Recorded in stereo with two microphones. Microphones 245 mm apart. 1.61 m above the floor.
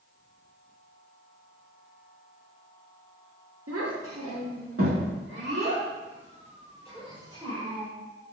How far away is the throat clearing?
No throat clearing in this recording.